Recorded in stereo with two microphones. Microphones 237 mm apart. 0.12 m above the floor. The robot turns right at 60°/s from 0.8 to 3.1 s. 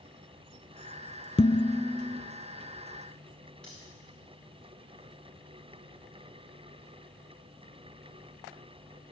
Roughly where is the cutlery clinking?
Centre.